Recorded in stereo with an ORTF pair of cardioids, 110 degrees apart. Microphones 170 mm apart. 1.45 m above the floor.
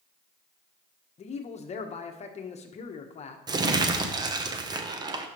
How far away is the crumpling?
About 0.9 m.